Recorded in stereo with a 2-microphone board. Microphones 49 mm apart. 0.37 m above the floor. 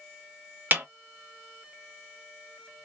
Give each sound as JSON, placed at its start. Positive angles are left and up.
{"t": 0.7, "sound": "a snare drum", "side_deg": -40, "distance_m": 0.8}